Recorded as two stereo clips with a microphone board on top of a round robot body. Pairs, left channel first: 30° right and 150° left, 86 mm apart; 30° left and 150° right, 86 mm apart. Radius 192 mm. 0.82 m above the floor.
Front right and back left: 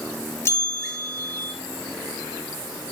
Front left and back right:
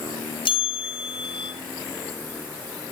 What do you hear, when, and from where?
0.5 s a bell: 25° left, 3.5 m